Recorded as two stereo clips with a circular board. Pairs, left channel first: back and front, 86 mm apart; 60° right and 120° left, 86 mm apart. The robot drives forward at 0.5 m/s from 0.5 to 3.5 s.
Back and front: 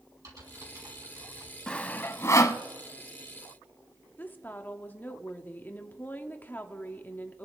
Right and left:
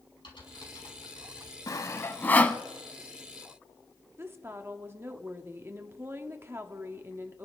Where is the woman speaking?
140° left, 1.1 m.